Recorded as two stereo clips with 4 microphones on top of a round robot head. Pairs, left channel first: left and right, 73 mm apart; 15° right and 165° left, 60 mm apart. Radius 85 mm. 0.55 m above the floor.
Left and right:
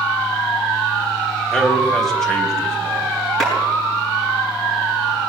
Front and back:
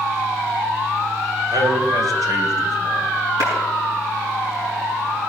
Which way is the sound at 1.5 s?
175° left.